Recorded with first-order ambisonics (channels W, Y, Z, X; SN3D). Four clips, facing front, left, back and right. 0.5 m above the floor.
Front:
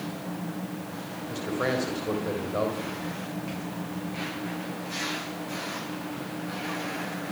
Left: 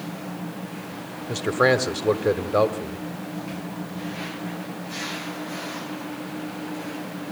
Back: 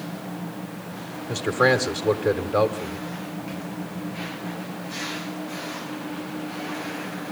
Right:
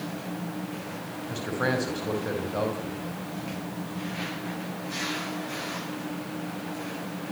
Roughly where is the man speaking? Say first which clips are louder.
Left 8 dB, back 9 dB; behind left.